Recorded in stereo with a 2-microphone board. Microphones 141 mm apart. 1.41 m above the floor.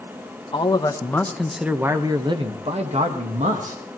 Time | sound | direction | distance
0.5 | a man speaking | 35° left (ahead or behind) | 1.3 m